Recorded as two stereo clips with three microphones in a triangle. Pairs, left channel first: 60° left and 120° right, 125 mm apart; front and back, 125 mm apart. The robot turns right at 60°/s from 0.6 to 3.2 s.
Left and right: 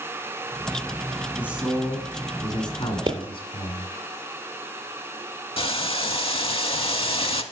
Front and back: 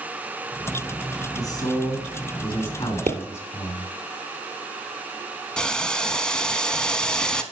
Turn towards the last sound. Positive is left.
turn(degrees=80)